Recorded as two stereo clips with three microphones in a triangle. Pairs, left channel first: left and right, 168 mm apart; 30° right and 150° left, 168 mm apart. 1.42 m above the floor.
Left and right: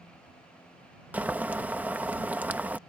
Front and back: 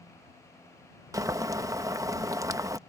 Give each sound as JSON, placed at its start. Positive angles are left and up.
{"t": 1.1, "sound": "boiling", "azimuth_deg": -160}